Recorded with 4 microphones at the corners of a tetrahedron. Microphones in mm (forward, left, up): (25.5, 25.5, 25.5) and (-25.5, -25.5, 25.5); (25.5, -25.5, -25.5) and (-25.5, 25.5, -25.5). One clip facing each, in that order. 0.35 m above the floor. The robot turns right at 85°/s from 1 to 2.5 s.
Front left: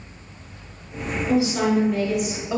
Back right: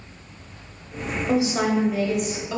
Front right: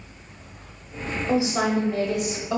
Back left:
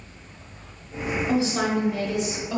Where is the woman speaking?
115° right, 1.0 m; by 2.6 s 10° right, 1.0 m.